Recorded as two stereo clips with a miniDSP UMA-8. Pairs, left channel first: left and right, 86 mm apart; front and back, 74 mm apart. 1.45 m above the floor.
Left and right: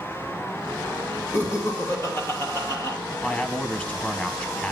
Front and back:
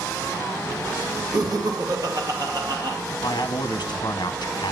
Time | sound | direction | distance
1.3 | laughter | 150° left | 2.5 m
3.2 | a man speaking | 15° left | 0.9 m